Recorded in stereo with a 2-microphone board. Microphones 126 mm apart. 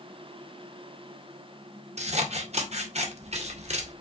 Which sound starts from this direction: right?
Scissors, at 2.0 s.